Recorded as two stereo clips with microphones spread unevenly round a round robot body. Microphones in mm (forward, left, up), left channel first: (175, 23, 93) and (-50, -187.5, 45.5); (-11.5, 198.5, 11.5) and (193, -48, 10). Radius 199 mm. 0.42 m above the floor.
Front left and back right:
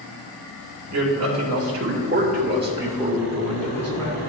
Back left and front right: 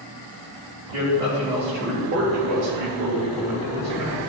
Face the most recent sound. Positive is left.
turn(degrees=-40)